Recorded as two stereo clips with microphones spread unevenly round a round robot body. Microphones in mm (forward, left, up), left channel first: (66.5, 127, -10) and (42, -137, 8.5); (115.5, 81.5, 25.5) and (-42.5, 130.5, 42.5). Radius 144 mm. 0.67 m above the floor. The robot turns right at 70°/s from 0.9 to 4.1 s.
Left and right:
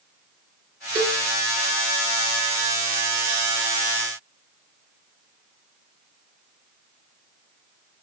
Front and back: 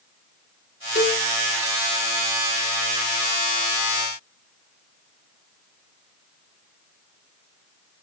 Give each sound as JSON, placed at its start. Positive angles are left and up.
{"t": 0.9, "sound": "a cowbell", "azimuth_deg": -25, "distance_m": 1.8}